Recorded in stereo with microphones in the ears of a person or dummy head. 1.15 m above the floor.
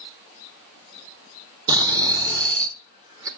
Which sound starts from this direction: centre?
Snoring, at 1.7 s.